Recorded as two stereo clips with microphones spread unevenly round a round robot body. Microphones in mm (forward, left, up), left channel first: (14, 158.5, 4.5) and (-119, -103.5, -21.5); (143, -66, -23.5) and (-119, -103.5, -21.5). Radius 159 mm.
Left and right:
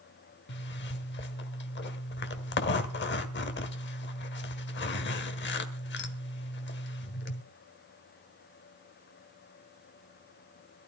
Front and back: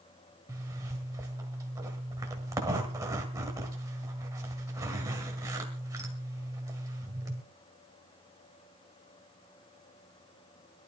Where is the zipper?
110° left, 1.6 m.